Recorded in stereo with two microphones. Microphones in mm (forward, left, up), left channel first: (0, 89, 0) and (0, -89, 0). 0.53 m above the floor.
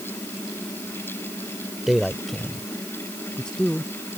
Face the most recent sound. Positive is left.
turn(degrees=5)  # may be behind; listen again after turning